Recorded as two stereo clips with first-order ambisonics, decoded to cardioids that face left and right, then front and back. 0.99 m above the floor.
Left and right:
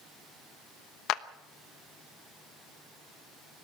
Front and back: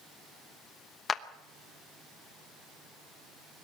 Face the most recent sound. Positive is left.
turn(degrees=65)